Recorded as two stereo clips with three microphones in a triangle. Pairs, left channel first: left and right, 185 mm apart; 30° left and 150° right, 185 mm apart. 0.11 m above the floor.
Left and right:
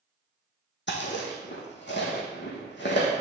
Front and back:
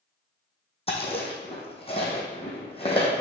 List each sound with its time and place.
0.9 s chewing: 85° left, 1.5 m